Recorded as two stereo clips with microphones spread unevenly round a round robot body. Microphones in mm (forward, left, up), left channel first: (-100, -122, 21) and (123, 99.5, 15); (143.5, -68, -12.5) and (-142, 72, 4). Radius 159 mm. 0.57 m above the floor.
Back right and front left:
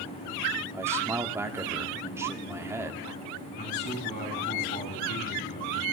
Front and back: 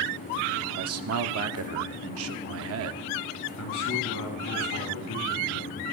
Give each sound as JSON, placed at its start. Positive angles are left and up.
{"t": 0.7, "sound": "a man speaking", "azimuth_deg": 125, "distance_m": 1.0}
{"t": 3.6, "sound": "a man speaking", "azimuth_deg": -75, "distance_m": 5.0}